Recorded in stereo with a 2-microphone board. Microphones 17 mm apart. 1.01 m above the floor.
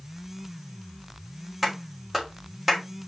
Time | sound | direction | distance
1.6 | a clap | 10° right (ahead or behind) | 3 m